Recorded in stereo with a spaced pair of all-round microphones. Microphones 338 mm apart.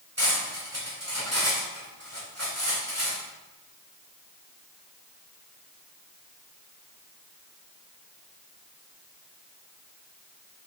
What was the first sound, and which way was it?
Cutlery clinking, 45° right (ahead or behind).